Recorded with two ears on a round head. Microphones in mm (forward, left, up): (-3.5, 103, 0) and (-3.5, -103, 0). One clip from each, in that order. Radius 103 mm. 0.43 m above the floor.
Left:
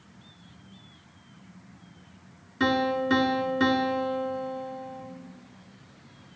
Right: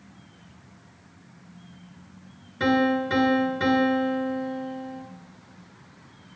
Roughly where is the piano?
Left.